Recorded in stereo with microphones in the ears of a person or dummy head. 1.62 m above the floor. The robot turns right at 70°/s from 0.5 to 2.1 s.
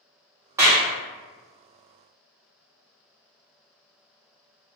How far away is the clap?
About 0.8 m.